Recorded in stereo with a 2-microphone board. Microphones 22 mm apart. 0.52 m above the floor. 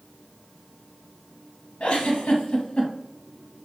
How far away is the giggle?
About 0.8 m.